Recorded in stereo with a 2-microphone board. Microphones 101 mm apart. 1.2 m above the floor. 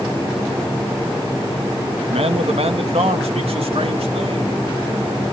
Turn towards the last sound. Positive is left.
turn(degrees=-75)  # may be behind; listen again after turning